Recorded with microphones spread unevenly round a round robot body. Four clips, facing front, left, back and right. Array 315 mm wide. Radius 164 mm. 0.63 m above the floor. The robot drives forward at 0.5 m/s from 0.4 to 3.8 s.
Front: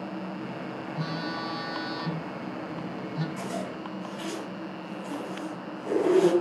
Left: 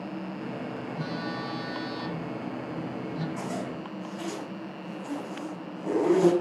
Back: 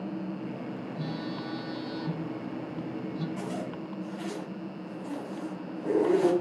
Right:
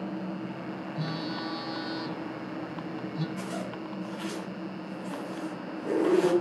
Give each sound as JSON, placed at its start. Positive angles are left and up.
{"t": 1.0, "sound": "a phone buzzing", "azimuth_deg": -5, "distance_m": 4.5}
{"t": 3.4, "sound": "a zipper", "azimuth_deg": 95, "distance_m": 4.5}